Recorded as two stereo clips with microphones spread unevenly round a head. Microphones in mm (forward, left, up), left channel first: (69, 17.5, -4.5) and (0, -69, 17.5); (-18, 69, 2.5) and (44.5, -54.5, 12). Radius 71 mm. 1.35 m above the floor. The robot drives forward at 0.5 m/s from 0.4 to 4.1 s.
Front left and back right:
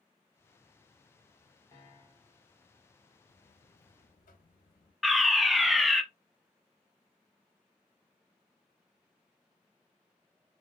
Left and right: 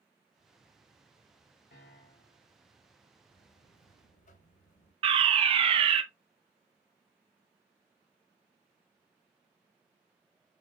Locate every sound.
1.7 s a piano: 125° left, 1.6 m; by 2.4 s 135° left, 1.8 m
3.3 s a buzzer: 65° left, 1.2 m; by 4.9 s 85° left, 1.1 m
5.0 s a fire alarm: 30° right, 1.0 m